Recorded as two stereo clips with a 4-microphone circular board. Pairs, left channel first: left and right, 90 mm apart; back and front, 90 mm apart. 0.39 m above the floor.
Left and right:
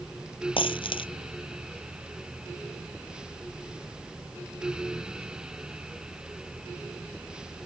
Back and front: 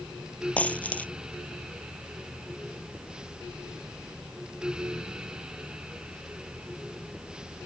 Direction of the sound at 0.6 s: 105° left.